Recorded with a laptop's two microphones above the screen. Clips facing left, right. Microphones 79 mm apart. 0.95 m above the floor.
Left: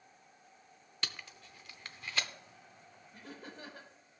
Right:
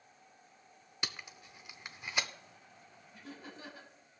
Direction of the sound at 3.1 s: 55° left (ahead or behind).